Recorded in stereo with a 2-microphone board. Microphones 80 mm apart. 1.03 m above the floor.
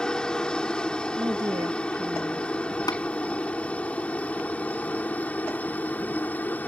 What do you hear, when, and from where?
0.0 s a helicopter: 10° left (ahead or behind); by 6.7 s 20° left (ahead or behind)
1.2 s a woman speaking: 55° right (ahead or behind)
2.9 s tapping: 55° left (ahead or behind)